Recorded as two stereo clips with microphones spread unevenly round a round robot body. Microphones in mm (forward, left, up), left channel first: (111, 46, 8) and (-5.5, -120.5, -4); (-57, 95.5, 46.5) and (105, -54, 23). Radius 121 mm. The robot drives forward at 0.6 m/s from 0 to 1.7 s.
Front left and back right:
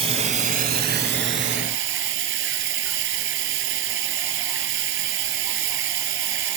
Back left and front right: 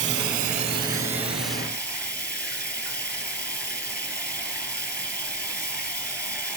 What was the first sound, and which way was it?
Running water, 65° right.